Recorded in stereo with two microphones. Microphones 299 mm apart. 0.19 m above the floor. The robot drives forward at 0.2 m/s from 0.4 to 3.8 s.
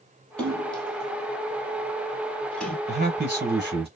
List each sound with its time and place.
0.4 s a splash: 5° left (ahead or behind), 1.5 m
2.9 s a man speaking: 35° right (ahead or behind), 1.5 m